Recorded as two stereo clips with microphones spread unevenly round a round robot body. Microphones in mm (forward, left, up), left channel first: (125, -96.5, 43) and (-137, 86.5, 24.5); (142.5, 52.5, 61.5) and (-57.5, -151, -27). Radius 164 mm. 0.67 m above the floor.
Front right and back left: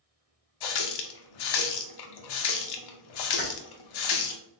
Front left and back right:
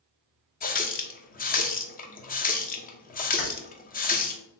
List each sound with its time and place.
0.6 s a running tap: 25° right, 0.7 m
3.4 s keys jangling: 25° left, 2 m